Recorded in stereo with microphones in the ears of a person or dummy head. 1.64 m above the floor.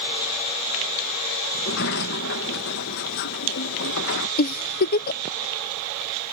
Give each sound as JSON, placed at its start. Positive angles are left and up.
{"t": 1.5, "sound": "a sliding door", "side_deg": 55}
{"t": 4.4, "sound": "a giggle", "side_deg": 45}